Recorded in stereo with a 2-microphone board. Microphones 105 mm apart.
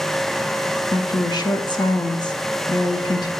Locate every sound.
0.9 s a woman speaking: 45° left (ahead or behind), 0.6 m